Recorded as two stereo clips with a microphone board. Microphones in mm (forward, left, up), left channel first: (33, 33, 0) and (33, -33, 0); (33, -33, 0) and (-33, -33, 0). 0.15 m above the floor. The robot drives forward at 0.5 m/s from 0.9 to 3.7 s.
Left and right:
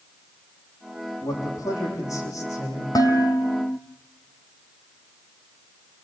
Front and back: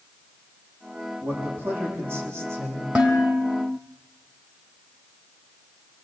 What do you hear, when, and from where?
1.2 s a man speaking: 125° left, 7.5 m; by 2.9 s 130° left, 8 m
3.0 s dishes clattering: 110° left, 3 m; by 3.8 s 120° left, 3.5 m